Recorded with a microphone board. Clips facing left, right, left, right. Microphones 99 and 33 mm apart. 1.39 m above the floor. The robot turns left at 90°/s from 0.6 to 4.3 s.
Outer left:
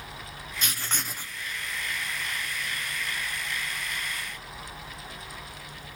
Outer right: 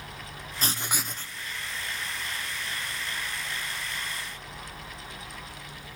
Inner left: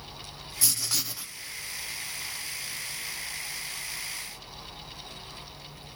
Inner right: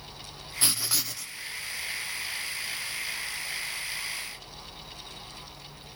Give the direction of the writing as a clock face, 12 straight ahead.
5 o'clock.